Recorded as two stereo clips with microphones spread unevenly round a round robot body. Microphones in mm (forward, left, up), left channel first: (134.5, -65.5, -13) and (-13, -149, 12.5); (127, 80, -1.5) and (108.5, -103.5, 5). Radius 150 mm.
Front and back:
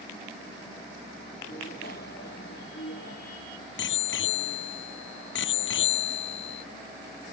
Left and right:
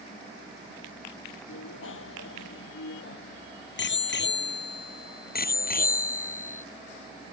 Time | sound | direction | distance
1.5 | a bicycle bell | 95° left | ?